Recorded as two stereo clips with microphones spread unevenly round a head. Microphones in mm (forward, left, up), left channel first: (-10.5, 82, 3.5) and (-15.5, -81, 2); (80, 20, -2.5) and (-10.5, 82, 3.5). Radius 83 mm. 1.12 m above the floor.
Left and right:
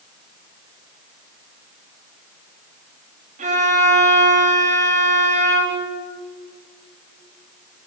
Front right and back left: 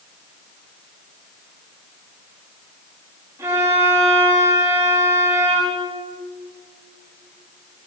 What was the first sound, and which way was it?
A violin, 140° right.